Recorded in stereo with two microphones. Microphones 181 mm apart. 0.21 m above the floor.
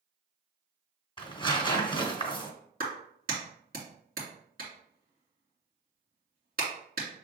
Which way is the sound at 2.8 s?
55° right (ahead or behind).